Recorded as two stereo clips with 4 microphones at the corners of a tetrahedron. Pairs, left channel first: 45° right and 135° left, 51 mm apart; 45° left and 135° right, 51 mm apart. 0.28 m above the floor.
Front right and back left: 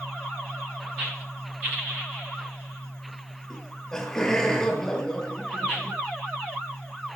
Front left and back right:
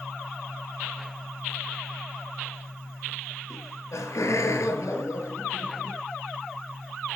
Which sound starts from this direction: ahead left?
Laughter, at 3.5 s.